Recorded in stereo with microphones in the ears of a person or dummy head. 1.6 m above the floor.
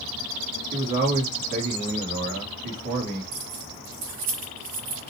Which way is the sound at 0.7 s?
45° right (ahead or behind).